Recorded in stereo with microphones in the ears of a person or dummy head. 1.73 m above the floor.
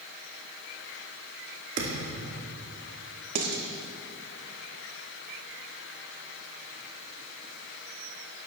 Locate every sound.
1.8 s a thud: 50° right (ahead or behind), 2.0 m
3.4 s dishes clattering: 45° right (ahead or behind), 1.3 m